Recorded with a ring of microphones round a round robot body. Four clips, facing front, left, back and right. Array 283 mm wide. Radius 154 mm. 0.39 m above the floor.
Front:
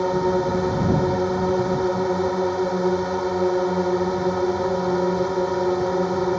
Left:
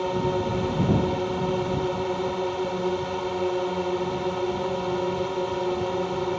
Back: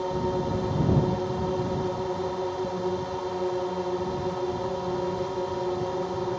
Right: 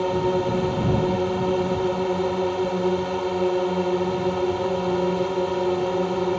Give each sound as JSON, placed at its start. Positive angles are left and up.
{"t": 0.0, "sound": "a drone", "azimuth_deg": -30}